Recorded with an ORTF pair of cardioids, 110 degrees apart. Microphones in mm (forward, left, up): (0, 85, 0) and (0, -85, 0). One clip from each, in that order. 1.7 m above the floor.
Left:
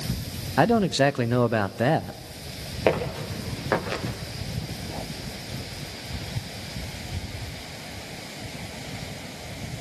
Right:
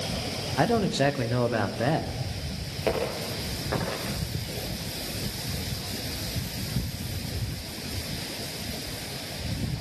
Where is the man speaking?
50° left, 0.9 m.